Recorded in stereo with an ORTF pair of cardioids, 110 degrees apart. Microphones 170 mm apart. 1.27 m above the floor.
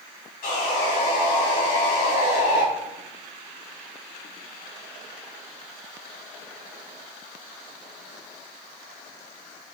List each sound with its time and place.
0.4 s sawing: 65° left, 3 m